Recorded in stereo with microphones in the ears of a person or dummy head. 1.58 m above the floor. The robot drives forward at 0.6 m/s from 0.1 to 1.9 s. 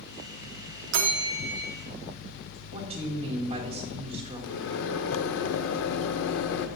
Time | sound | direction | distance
0.9 | a bell | 65° right (ahead or behind) | 0.7 m
2.7 | a woman speaking | 35° right (ahead or behind) | 1.4 m
4.4 | a microwave | 70° left (ahead or behind) | 0.6 m